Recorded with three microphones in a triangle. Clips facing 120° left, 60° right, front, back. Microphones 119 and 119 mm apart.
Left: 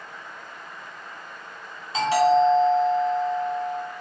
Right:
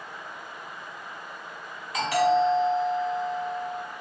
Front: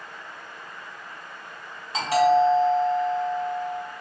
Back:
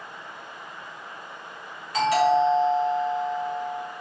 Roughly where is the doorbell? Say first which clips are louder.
Left 4 dB, front 1 dB; ahead left.